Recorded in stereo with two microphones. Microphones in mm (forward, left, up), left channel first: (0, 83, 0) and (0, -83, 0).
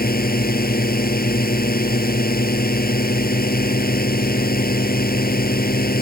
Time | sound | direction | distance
0.0 | a drone | 65° left (ahead or behind) | ?